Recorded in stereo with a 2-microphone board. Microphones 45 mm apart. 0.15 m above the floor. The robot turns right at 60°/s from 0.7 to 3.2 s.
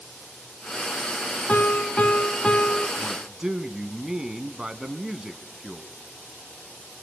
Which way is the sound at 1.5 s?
75° left.